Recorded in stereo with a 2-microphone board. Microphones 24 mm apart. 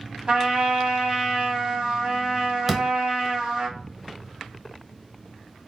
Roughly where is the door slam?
Centre.